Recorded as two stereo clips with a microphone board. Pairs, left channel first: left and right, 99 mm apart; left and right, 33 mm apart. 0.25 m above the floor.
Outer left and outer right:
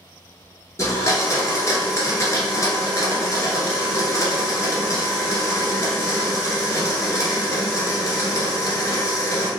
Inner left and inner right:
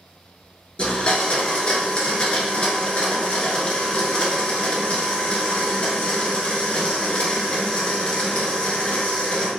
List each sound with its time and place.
0.8 s a blender: 35° left (ahead or behind), 1.2 m